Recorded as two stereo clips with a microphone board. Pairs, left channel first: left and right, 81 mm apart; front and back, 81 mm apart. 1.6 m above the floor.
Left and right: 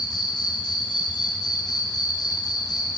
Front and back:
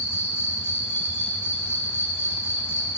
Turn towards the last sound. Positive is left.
turn(degrees=60)